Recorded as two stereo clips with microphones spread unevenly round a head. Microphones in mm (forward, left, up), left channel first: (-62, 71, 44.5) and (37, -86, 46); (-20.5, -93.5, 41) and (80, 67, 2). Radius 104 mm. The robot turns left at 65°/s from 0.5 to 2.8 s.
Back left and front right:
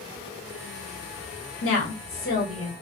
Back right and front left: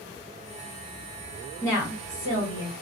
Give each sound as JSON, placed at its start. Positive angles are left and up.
{"t": 1.6, "sound": "a woman speaking", "azimuth_deg": 140, "distance_m": 1.2}